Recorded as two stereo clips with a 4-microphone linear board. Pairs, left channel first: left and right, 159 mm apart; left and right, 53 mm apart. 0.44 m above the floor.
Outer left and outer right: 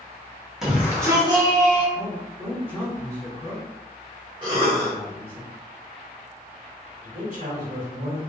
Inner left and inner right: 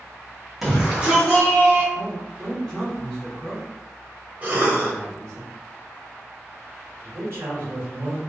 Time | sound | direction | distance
0.6 | a shout | centre (ahead or behind) | 1.0 m
1.9 | a man speaking | 10° left (ahead or behind) | 0.9 m
4.4 | a cough | 30° right (ahead or behind) | 0.8 m
7.0 | a man speaking | 50° right (ahead or behind) | 1.4 m